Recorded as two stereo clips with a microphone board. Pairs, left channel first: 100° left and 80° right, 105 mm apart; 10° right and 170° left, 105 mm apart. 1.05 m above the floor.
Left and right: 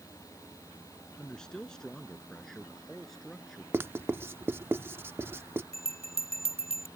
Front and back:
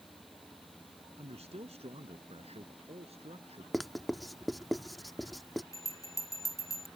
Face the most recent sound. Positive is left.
turn(degrees=-70)